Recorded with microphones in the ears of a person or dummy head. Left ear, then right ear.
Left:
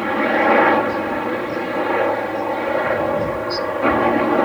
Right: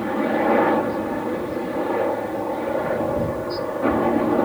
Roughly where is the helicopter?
Left.